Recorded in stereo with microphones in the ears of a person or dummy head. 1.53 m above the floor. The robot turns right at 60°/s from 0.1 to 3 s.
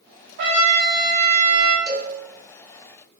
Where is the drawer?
No drawer in this recording.